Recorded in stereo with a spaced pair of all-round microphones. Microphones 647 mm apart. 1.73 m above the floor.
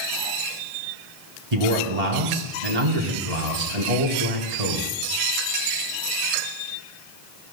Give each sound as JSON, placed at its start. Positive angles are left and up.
{"t": 1.5, "sound": "a man speaking", "side_deg": -75, "distance_m": 2.5}